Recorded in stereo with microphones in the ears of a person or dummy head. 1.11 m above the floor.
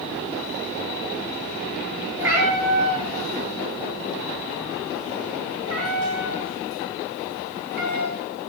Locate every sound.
2.2 s a cat meowing: 15° right (ahead or behind), 3 m; by 8.2 s 60° right (ahead or behind), 4.5 m